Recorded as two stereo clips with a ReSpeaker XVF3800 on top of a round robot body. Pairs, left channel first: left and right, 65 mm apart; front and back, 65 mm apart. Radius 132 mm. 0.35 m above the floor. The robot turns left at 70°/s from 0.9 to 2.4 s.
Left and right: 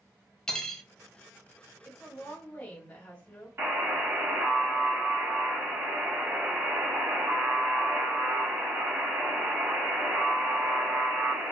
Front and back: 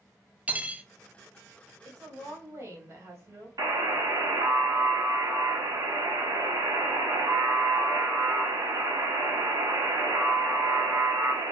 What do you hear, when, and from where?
0.5 s cutlery clinking: 155° left, 0.6 m
1.8 s a woman speaking: 170° right, 1.6 m; by 3.5 s 155° left, 1.6 m
3.6 s a buzzer: 150° right, 0.6 m